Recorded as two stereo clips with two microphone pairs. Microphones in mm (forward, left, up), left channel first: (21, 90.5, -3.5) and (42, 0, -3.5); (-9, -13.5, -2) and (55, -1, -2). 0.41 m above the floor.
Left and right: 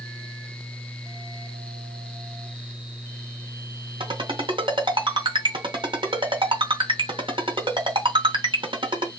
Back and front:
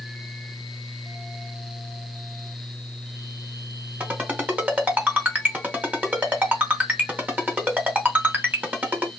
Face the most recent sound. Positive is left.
turn(degrees=-50)